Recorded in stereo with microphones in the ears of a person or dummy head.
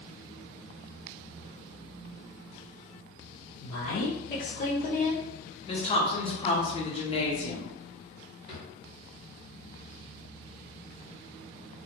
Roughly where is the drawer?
Left.